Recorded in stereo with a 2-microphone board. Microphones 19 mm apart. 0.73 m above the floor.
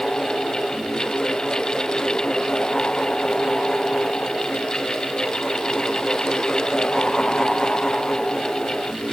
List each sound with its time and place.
Only background noise.